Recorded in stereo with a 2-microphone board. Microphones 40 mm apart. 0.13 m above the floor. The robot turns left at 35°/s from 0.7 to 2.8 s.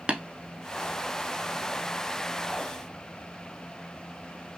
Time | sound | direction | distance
0.1 | tapping | 30° right (ahead or behind) | 0.7 m